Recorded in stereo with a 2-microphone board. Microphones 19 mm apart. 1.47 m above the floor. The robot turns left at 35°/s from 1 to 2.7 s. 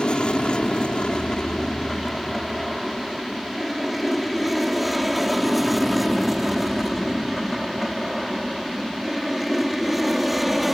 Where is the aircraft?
55° left (ahead or behind); by 10.8 s 5° right (ahead or behind).